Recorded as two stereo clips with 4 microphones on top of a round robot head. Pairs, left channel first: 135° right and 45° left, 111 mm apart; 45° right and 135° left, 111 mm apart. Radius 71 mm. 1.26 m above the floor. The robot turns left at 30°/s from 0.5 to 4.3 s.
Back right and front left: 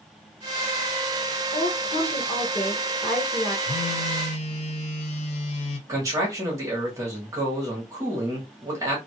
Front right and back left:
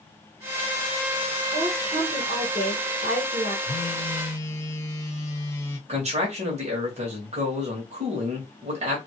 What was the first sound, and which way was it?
A woman speaking, 165° right.